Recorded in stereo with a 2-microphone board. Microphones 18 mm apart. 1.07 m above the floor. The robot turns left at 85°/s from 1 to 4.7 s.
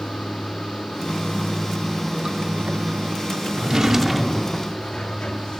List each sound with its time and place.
0.0 s running water: 85° left, 2 m; by 5.6 s 135° left, 2 m
3.6 s a drawer: 120° right, 0.7 m; by 4.7 s 140° left, 0.7 m